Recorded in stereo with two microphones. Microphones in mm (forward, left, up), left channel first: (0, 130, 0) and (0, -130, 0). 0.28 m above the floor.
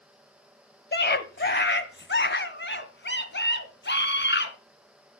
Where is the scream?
40° left (ahead or behind), 1.2 m; by 4.5 s 45° left (ahead or behind), 2.5 m.